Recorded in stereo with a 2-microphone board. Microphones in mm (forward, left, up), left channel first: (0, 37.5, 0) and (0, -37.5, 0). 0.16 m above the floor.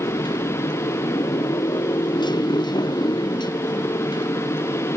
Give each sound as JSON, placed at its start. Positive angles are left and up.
{"t": 0.0, "sound": "a motorcycle", "side_deg": 80}